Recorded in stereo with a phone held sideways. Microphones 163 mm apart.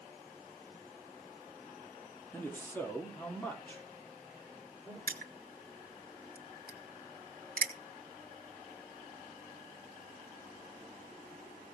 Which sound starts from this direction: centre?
A man speaking, at 2.3 s.